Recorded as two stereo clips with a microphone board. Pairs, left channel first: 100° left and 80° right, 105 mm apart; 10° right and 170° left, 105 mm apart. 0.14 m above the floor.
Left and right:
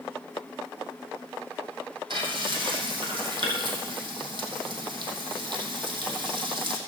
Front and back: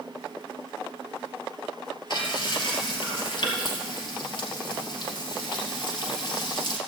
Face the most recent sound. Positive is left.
turn(degrees=-45)